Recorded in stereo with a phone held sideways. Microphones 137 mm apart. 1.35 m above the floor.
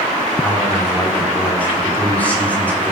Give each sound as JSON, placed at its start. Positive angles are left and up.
{"t": 0.4, "sound": "a man speaking", "side_deg": 10, "distance_m": 4.0}